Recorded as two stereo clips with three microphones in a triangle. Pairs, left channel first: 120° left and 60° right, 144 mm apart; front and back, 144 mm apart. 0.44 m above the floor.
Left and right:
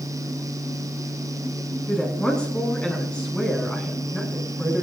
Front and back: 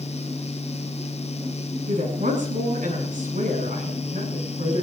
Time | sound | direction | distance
1.9 | a woman speaking | 155° right | 7.5 m